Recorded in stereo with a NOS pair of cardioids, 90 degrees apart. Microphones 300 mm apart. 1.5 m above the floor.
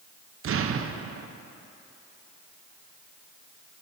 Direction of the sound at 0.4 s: 45° right.